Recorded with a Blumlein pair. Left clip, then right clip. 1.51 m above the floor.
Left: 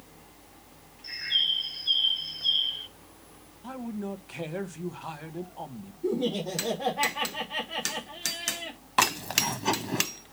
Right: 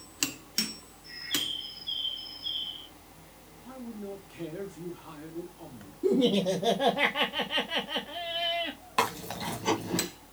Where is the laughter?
65° right, 2.5 m.